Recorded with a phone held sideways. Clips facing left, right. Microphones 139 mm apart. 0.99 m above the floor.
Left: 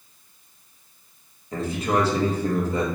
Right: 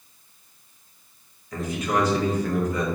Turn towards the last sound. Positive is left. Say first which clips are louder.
# left 2 dB
turn(degrees=30)  # may be behind; listen again after turning